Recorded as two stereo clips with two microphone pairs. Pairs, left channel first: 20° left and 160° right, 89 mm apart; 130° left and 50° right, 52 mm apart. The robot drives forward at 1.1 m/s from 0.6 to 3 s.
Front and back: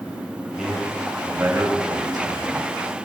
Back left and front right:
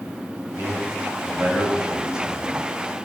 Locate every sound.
0.5 s a man speaking: 75° right, 2.5 m; by 2.5 s 130° right, 3 m